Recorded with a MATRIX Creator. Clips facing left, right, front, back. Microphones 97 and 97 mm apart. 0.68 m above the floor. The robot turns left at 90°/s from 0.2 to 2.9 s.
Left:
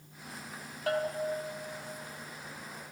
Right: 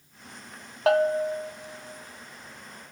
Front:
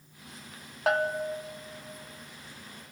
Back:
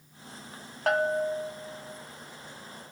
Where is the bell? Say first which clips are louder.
Right 10 dB, back 2 dB; 85° right, 0.6 m; by 1.5 s 145° right, 0.6 m.